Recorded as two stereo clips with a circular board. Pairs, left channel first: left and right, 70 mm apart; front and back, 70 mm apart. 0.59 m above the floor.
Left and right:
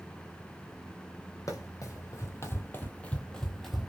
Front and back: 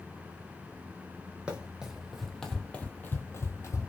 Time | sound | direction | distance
1.5 | running footsteps | 110° left | 1.0 m